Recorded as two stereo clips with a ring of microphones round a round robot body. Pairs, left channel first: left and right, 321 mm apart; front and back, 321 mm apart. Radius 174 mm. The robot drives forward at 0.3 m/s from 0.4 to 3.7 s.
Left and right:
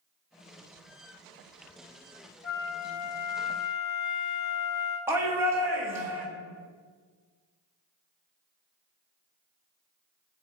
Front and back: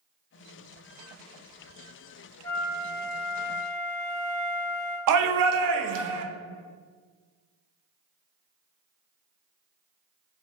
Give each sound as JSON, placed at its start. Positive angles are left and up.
{"t": 2.4, "sound": "a flute", "azimuth_deg": 75, "distance_m": 1.1}
{"t": 5.1, "sound": "a shout", "azimuth_deg": -170, "distance_m": 0.6}